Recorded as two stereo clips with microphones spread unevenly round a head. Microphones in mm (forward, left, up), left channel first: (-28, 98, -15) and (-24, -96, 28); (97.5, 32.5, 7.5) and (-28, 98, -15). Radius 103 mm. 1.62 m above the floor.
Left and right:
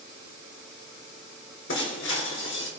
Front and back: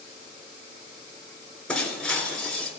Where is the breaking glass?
55° left, 3.5 m.